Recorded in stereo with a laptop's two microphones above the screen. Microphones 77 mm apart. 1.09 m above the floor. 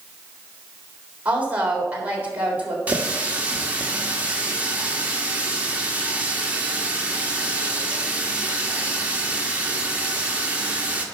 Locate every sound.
1.2 s a woman speaking: 20° right (ahead or behind), 3.5 m
2.9 s a running tap: 20° right (ahead or behind), 1.5 m